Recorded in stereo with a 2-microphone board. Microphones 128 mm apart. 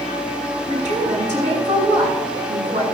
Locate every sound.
0.7 s a woman speaking: 70° right (ahead or behind), 7.5 m